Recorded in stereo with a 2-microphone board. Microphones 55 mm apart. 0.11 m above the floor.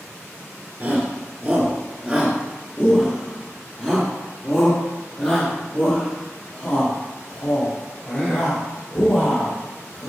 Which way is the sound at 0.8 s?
30° right (ahead or behind).